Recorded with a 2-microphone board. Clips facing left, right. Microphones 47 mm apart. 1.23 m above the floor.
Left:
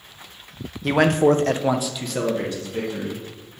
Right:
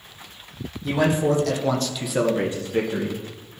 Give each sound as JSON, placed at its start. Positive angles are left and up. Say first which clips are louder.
{"t": 0.8, "sound": "a man speaking", "louder": "left 4 dB", "side_deg": 70, "distance_m": 0.9}